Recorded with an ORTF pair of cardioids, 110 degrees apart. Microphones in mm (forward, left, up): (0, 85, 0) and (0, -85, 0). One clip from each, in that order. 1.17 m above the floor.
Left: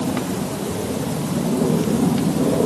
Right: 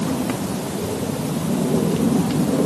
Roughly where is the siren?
No siren in this recording.